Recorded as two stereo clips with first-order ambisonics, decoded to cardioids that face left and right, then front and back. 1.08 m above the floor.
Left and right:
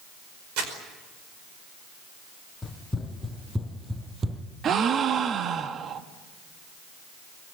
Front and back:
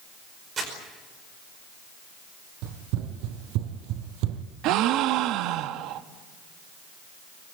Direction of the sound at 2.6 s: 165° left.